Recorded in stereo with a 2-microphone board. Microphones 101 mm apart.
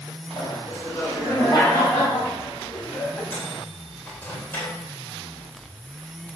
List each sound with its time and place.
0.4 s laughter: 35° left (ahead or behind), 6 m; by 3.2 s 15° left (ahead or behind), 7.5 m
3.3 s a microwave: 20° left (ahead or behind), 4 m